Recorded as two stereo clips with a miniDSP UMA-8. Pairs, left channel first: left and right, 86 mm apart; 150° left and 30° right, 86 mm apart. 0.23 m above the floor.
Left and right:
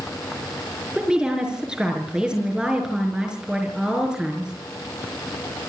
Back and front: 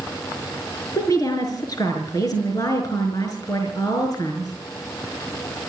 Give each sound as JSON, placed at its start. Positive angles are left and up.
{"t": 0.9, "sound": "a woman speaking", "azimuth_deg": -170, "distance_m": 4.5}